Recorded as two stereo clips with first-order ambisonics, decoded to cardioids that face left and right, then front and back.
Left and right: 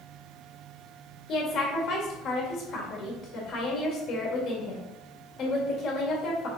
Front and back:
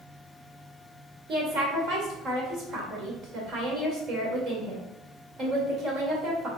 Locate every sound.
1.3 s a woman speaking: 130° left, 2 m